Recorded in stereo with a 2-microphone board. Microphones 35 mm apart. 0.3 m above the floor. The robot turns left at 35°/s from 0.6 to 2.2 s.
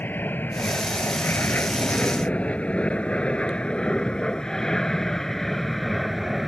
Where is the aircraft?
65° left (ahead or behind); by 6.5 s 5° right (ahead or behind).